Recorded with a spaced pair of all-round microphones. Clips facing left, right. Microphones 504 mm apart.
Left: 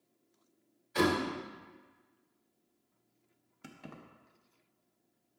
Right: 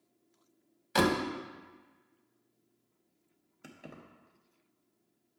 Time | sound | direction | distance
0.9 | a door slam | 85° right | 0.8 m
3.6 | keys jangling | 25° left (ahead or behind) | 0.6 m